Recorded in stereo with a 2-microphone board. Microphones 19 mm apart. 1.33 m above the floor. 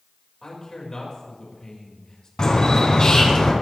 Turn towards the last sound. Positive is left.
turn(degrees=45)  # may be behind; listen again after turning